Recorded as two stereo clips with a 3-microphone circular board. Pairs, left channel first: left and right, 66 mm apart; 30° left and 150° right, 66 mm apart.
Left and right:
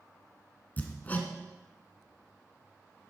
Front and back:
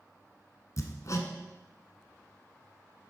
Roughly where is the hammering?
Ahead left.